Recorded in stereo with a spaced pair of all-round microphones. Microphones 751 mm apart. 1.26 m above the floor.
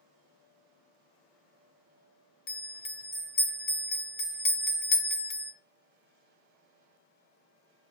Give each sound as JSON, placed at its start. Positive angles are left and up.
{"t": 2.5, "sound": "a bell", "side_deg": 60, "distance_m": 0.7}